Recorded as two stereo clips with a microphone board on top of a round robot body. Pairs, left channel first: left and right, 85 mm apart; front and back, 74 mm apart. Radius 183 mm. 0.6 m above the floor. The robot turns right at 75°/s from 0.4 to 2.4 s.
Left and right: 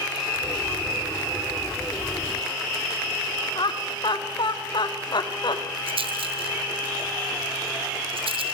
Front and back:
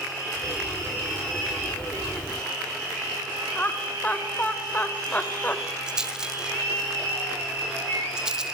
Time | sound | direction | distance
3.5 | laughter | 70° left | 1.8 m
5.9 | a rattle | 100° right | 1.4 m